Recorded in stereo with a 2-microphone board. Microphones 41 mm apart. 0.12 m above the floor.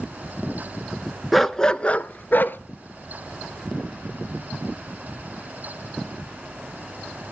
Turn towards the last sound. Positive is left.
turn(degrees=55)  # may be behind; listen again after turning